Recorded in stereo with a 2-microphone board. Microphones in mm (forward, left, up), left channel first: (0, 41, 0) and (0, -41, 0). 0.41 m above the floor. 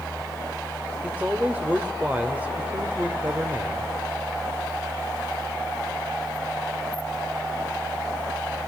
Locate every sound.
1.0 s a man speaking: 20° right (ahead or behind), 1.4 m